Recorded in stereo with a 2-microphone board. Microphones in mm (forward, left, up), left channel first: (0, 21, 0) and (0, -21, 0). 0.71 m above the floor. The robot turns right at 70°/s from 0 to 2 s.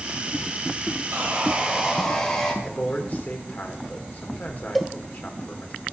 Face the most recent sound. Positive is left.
turn(degrees=0)  # may be behind; listen again after turning